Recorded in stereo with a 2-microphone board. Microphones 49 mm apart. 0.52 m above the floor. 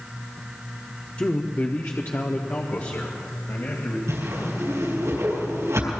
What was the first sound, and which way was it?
A man speaking, 25° left (ahead or behind).